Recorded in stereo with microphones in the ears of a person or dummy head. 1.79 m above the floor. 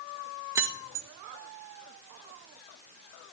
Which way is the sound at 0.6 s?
20° right (ahead or behind).